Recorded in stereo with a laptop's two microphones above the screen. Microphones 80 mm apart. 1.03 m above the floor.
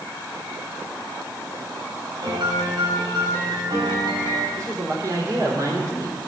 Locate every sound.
2.2 s a piano: 70° right (ahead or behind), 3 m
4.6 s a man speaking: 45° right (ahead or behind), 3.5 m